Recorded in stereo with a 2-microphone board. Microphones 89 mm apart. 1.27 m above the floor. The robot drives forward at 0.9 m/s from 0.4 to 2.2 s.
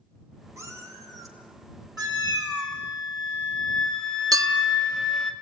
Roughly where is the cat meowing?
Right.